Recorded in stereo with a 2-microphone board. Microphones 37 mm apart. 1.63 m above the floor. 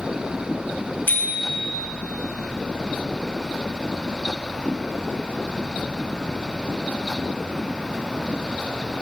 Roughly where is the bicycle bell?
Left.